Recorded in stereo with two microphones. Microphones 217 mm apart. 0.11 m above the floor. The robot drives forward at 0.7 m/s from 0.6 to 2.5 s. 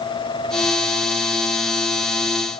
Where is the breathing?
I don't hear breathing.